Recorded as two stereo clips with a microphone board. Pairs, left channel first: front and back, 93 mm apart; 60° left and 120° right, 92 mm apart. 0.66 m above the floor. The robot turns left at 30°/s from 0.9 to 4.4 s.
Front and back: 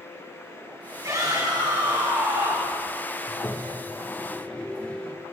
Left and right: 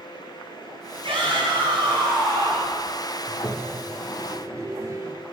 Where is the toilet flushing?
40° right, 1.1 m; by 5.2 s 75° right, 1.1 m.